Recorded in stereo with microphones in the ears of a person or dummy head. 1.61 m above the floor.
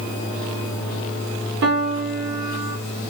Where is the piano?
65° right (ahead or behind), 0.8 m.